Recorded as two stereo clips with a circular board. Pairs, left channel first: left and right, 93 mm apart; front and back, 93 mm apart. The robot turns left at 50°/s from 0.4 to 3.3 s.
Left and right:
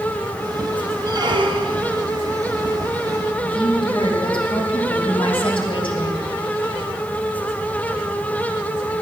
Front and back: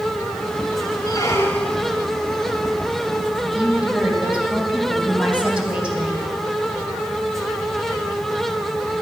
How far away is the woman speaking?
About 3 m.